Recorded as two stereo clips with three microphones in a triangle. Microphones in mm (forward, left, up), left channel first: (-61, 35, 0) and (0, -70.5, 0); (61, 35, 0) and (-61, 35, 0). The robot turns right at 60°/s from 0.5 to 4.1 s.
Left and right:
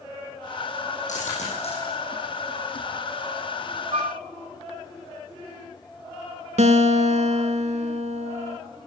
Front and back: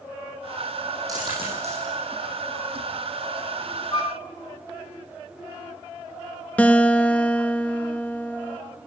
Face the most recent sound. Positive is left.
turn(degrees=-75)